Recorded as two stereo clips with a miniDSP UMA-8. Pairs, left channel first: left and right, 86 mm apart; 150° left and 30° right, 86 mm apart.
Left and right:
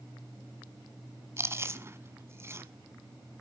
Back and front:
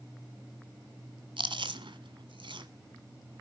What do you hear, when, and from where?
1.4 s chewing: 30° right, 1.4 m